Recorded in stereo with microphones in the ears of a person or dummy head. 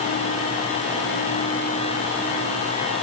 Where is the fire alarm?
I don't hear a fire alarm.